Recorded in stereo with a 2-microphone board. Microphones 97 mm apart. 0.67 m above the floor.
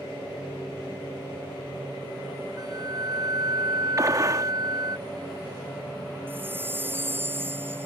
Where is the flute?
40° right (ahead or behind).